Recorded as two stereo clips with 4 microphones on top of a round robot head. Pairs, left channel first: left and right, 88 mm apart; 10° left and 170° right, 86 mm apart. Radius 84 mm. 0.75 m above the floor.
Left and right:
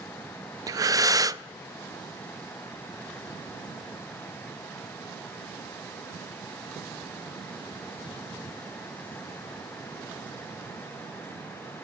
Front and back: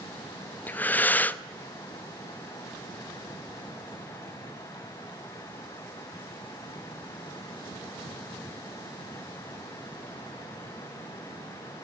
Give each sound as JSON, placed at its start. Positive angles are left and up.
{"t": 0.7, "sound": "breathing", "azimuth_deg": -55, "distance_m": 0.8}